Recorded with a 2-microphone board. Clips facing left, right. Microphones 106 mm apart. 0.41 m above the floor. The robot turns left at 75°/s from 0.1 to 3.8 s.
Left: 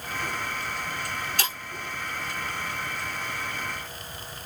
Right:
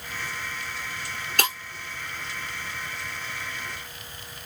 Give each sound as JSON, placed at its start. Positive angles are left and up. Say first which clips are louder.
{"t": 1.4, "sound": "breaking glass", "louder": "right 9 dB", "side_deg": -55, "distance_m": 1.5}